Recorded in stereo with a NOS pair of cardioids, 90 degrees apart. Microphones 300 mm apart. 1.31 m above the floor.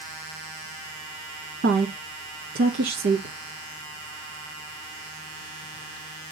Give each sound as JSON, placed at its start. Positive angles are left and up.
{"t": 1.6, "sound": "a woman speaking", "azimuth_deg": -40, "distance_m": 1.7}